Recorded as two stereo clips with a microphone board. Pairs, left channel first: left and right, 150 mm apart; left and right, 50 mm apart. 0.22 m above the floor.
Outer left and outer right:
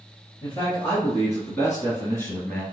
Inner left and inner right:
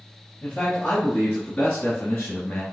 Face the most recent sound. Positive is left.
turn(degrees=15)  # may be behind; listen again after turning